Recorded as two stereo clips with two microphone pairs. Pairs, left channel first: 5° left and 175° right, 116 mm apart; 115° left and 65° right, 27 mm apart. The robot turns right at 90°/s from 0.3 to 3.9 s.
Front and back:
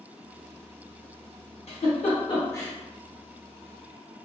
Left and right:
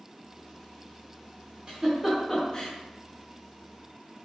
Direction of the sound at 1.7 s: 20° right.